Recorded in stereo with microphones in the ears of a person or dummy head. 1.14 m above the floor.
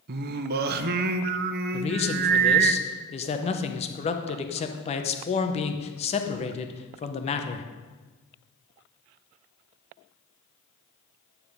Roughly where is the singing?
Right.